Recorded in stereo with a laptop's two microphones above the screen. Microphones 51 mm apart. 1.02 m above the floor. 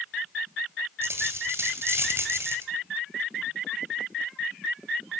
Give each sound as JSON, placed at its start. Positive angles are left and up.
{"t": 1.0, "sound": "a dropped coin", "side_deg": -60, "distance_m": 2.0}